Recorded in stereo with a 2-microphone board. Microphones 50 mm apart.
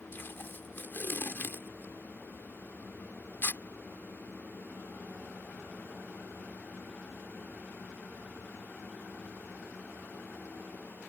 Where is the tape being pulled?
50° left (ahead or behind).